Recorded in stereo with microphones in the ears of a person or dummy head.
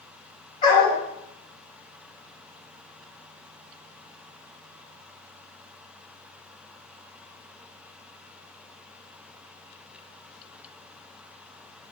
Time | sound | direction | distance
0.6 | a dog barking | 30° left (ahead or behind) | 3 m